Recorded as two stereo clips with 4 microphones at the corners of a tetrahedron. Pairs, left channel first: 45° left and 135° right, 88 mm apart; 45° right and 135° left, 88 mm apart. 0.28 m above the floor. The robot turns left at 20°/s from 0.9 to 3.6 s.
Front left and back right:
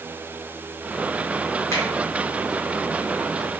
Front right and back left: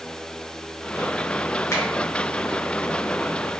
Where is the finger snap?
5° right, 1.5 m.